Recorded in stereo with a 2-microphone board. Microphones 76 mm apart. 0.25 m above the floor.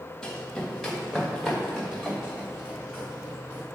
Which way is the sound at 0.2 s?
5° left (ahead or behind).